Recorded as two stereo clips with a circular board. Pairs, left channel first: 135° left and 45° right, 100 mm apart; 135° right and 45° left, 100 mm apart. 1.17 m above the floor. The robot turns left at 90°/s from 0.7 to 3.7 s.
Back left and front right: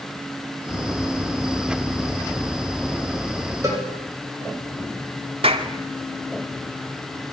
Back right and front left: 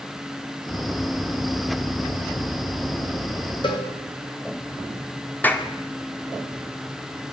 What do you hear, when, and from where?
3.6 s a cowbell: 100° right, 5.5 m; by 3.9 s 105° right, 5.5 m
5.4 s a clap: 65° right, 2 m